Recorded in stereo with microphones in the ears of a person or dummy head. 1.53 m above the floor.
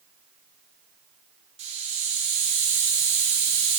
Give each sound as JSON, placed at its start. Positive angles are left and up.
{"t": 1.6, "sound": "a hiss", "side_deg": -35, "distance_m": 1.6}